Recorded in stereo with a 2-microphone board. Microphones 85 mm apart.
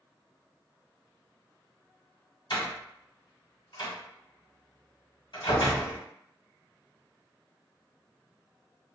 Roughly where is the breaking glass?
I don't hear breaking glass.